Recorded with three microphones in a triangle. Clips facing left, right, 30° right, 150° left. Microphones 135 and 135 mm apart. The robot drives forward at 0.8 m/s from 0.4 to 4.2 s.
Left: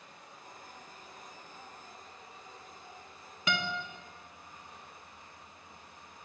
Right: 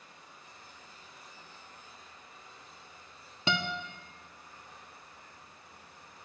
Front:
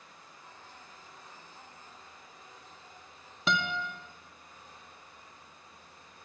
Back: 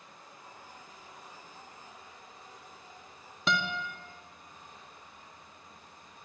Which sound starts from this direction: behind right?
A guitar, at 3.5 s.